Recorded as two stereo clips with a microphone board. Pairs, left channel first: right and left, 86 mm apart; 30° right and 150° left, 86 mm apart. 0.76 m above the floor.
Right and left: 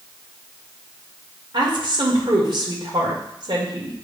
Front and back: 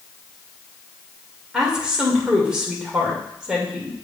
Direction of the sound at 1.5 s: 70° left.